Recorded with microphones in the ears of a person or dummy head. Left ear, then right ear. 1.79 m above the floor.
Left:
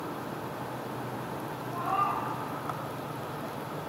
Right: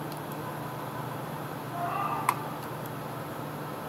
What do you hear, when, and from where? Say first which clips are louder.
1.7 s a cat meowing: left 2 dB; 25° right (ahead or behind), 3 m